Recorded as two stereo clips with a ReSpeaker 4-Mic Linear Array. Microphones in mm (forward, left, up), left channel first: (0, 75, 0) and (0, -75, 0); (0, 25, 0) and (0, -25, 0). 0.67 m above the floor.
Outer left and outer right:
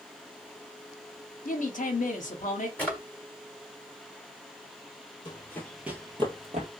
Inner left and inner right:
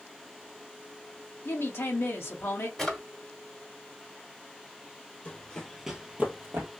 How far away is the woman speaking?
About 0.9 m.